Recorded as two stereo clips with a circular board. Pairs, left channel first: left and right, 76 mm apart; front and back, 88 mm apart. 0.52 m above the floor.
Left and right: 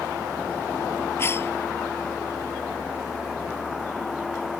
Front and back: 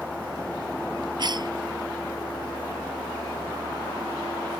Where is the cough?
145° left.